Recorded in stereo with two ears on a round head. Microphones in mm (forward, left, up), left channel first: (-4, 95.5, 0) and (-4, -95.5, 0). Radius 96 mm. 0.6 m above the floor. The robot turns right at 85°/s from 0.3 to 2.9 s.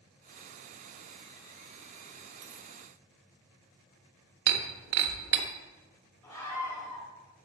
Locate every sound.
2.4 s a dropped coin: 55° right (ahead or behind), 1.2 m; by 2.7 s 75° right (ahead or behind), 1.2 m
4.5 s breaking glass: 60° right (ahead or behind), 0.9 m
6.2 s a scream: 15° left (ahead or behind), 3 m